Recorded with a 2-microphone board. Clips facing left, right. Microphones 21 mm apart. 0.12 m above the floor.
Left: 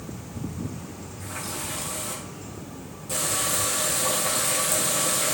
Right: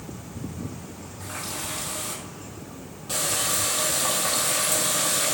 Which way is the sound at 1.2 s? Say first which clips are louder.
Right 1 dB; 30° right (ahead or behind).